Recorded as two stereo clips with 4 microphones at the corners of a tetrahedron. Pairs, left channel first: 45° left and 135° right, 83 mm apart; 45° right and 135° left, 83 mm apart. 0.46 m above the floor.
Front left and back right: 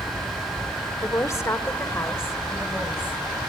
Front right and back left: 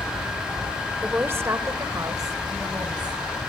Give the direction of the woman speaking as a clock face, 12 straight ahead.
9 o'clock.